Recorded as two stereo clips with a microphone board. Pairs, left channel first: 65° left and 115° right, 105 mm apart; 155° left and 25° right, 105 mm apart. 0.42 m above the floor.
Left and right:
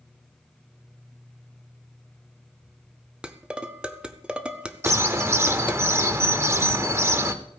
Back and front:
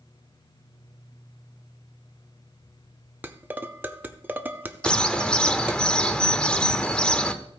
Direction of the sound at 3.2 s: 55° right.